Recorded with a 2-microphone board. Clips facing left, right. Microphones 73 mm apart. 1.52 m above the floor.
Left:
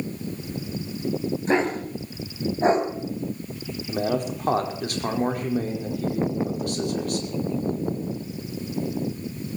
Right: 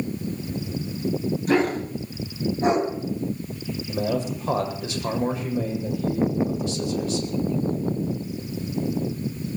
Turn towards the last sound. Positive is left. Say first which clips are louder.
# left 1 dB
turn(degrees=55)  # may be behind; listen again after turning